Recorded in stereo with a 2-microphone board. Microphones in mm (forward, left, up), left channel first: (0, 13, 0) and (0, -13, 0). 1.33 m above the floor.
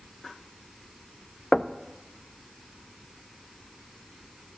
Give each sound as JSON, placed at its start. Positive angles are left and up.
{"t": 1.5, "sound": "knocking", "side_deg": 20, "distance_m": 0.6}